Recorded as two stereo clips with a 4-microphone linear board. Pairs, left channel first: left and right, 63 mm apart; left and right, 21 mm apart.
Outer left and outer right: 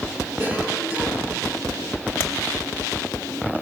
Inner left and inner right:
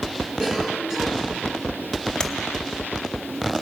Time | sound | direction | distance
0.4 | a cough | 30° right (ahead or behind) | 8 m
2.2 | tapping | 35° left (ahead or behind) | 1.0 m